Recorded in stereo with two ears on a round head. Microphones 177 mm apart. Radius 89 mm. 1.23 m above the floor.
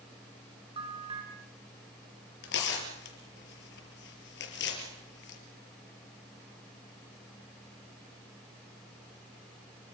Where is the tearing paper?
65° left (ahead or behind), 5 m.